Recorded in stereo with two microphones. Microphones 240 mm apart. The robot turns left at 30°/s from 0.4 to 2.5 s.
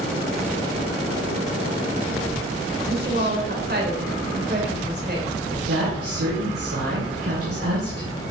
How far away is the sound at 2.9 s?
About 3 m.